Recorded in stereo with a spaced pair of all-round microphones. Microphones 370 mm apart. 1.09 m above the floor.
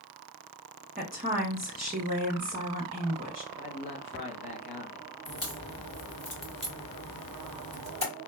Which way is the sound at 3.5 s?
75° left (ahead or behind).